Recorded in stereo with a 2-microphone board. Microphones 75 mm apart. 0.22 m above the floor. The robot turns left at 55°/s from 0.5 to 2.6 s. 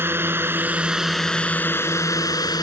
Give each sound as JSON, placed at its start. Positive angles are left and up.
{"t": 0.0, "sound": "a drone", "azimuth_deg": -145}